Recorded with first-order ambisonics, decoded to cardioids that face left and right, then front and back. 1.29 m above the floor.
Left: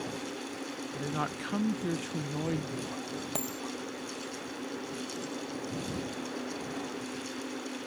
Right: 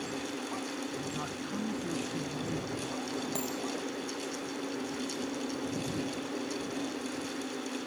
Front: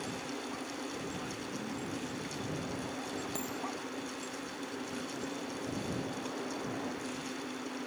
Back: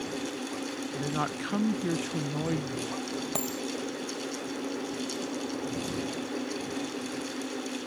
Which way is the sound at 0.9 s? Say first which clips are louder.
Left 3 dB, back 8 dB; 150° left.